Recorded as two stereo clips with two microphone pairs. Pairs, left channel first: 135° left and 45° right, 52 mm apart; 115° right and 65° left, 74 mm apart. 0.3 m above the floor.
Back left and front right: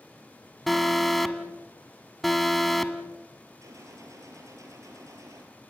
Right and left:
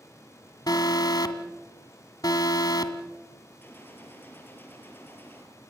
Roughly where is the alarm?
Behind right.